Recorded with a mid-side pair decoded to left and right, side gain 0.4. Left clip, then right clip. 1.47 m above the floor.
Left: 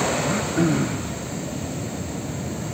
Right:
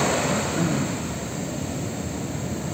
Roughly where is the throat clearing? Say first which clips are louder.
Left 2 dB; ahead left.